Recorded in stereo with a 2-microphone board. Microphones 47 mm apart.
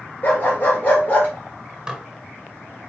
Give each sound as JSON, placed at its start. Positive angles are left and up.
{"t": 0.2, "sound": "a dog barking", "side_deg": 35, "distance_m": 1.6}
{"t": 1.9, "sound": "dishes clattering", "side_deg": -15, "distance_m": 0.7}